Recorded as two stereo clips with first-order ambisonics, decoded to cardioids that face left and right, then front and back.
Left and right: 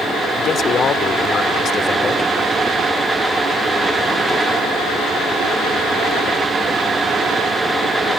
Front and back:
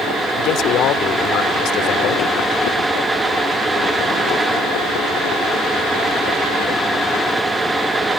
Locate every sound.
0.4 s a man speaking: 35° left